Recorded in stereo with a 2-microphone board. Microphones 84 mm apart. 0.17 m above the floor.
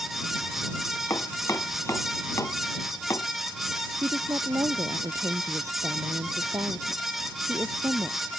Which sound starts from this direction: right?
A woman speaking, at 4.0 s.